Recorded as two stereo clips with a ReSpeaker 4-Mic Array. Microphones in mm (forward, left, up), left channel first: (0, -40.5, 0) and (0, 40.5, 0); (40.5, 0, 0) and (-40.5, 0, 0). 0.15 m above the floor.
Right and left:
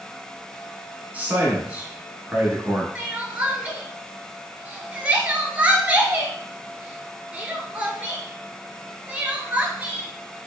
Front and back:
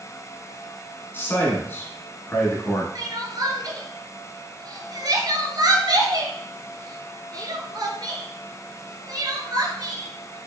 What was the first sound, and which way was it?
A man speaking, 35° left.